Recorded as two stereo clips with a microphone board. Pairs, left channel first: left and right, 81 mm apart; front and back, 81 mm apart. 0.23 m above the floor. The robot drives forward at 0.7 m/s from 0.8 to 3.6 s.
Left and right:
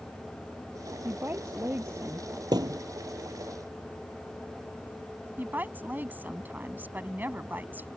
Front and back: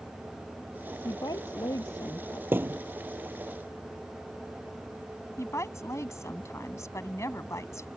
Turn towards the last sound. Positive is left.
turn(degrees=-30)